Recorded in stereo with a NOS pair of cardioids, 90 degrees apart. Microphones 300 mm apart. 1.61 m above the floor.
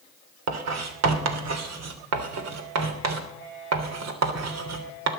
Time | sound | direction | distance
0.5 | writing | 65° right | 3 m